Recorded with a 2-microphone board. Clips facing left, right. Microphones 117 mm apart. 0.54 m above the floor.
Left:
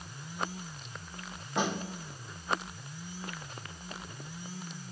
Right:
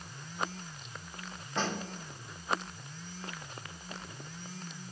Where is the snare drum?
15° left (ahead or behind), 0.7 m.